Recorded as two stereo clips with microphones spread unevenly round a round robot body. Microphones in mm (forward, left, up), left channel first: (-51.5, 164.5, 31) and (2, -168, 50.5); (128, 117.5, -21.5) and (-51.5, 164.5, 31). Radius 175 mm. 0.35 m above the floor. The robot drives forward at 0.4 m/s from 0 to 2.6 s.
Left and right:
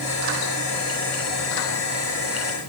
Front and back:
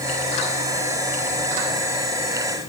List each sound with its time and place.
Only background noise.